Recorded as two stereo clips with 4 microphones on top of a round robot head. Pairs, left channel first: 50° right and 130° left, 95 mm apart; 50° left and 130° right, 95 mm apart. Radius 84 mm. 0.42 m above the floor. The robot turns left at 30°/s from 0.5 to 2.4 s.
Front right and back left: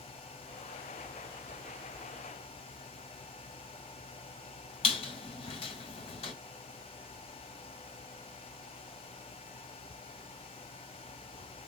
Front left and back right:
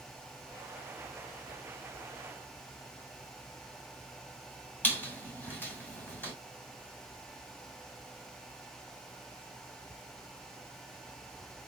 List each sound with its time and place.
4.8 s a squeak: 20° right, 2 m